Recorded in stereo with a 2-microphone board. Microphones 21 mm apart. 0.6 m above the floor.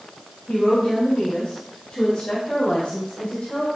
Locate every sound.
0.5 s a woman speaking: 50° left (ahead or behind), 4.5 m; by 3.7 s 70° left (ahead or behind), 5.5 m